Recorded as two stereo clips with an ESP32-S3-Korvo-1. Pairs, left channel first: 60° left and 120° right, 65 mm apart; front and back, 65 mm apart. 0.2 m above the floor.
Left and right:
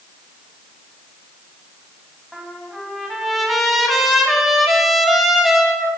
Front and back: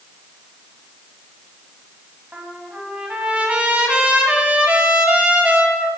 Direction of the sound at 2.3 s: 150° left.